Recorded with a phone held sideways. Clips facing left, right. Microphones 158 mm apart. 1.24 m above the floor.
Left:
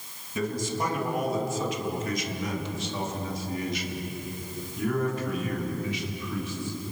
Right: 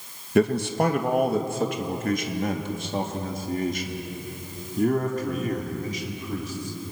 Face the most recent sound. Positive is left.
turn(degrees=-40)  # may be behind; listen again after turning